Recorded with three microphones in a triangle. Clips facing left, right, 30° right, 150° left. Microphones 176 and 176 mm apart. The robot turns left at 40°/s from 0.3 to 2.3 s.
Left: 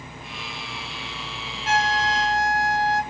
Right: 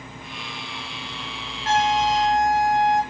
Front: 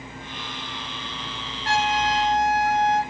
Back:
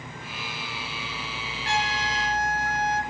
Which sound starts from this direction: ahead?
A trumpet, at 1.6 s.